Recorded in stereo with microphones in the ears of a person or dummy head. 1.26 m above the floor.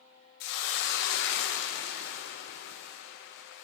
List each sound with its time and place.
0.4 s a hiss: 65° left (ahead or behind), 0.6 m